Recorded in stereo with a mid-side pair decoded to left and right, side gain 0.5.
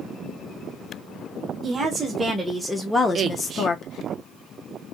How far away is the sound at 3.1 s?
About 0.6 m.